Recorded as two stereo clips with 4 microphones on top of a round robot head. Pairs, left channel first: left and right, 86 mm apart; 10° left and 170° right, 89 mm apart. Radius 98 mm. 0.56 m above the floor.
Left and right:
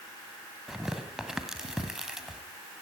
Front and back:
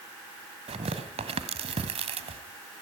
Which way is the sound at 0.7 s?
175° right.